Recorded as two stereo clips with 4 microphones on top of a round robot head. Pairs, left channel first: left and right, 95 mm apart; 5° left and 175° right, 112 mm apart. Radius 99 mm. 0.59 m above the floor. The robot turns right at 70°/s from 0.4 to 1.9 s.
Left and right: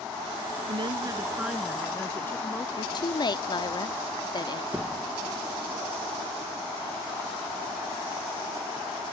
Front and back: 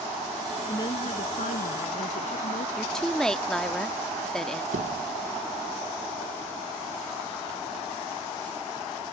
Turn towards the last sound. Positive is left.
turn(degrees=-170)